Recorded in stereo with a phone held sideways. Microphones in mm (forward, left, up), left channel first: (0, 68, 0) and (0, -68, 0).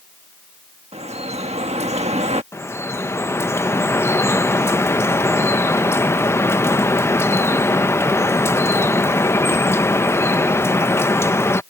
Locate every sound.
0.9 s dripping: 55° right (ahead or behind)
2.5 s dripping: 20° left (ahead or behind)